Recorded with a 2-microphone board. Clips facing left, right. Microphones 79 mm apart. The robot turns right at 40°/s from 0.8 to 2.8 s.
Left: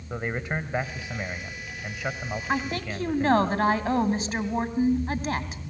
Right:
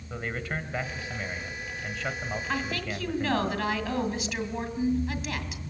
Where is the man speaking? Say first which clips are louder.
Left 3 dB; 20° left (ahead or behind), 1.2 m; by 3.5 s centre (ahead or behind), 1.2 m.